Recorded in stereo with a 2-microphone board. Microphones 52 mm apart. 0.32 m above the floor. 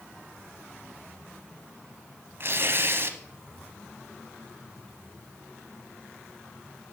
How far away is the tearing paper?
About 0.9 m.